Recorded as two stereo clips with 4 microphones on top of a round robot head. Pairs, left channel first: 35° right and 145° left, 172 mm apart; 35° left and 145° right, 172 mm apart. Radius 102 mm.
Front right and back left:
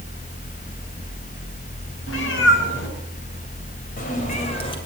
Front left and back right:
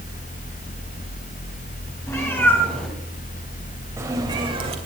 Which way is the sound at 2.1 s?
40° right.